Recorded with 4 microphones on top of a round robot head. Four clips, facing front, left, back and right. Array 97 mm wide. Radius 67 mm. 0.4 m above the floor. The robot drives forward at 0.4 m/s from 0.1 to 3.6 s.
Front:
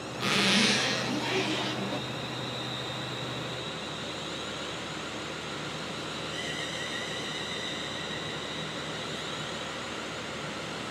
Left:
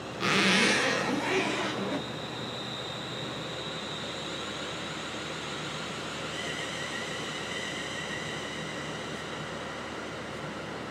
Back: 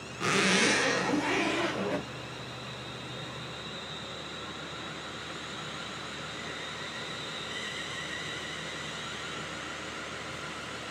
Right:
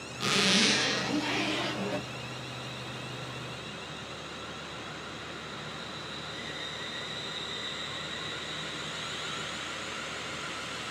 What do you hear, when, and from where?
0.2 s a zipper: 120° left, 1.2 m; by 2.1 s 150° left, 1.6 m